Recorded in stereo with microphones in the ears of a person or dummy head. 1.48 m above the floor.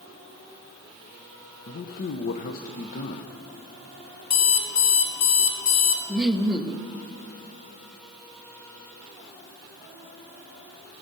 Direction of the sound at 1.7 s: 50° left (ahead or behind).